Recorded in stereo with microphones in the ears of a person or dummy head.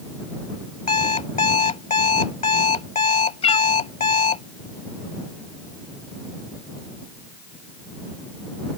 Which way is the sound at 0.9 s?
40° left (ahead or behind).